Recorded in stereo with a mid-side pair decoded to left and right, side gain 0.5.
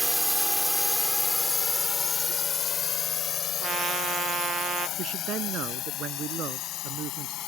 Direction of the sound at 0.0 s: 5° right.